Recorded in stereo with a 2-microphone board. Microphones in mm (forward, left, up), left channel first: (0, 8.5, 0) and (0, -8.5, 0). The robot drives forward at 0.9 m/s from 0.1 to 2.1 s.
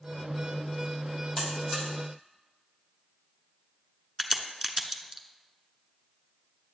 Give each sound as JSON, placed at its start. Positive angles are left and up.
{"t": 1.4, "sound": "a buzzer", "side_deg": 15, "distance_m": 2.5}
{"t": 4.2, "sound": "a crack", "side_deg": -15, "distance_m": 0.8}